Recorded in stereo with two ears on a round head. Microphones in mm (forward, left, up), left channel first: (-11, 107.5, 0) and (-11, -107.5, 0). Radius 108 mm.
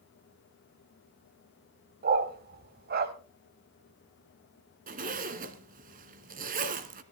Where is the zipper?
40° right (ahead or behind), 1.3 m.